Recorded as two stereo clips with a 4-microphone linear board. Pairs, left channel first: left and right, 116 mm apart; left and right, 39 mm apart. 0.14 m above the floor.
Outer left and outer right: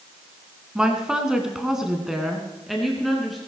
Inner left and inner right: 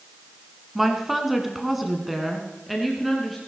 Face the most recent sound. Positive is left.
turn(degrees=0)  # may be behind; listen again after turning